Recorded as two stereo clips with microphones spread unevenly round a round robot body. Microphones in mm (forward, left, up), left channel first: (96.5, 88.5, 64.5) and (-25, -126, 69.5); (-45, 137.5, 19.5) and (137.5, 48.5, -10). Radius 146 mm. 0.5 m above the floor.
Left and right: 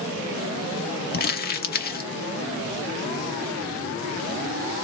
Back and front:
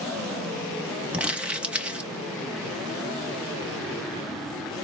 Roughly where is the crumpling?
Ahead left.